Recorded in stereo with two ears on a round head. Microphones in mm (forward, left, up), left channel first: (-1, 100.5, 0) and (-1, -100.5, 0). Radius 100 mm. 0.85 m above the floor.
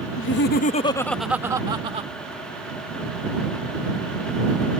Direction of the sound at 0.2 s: 60° left (ahead or behind).